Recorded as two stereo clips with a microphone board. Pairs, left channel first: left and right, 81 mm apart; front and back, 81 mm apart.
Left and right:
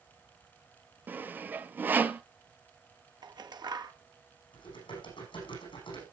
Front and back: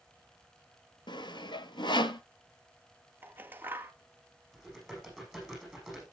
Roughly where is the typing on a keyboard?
Left.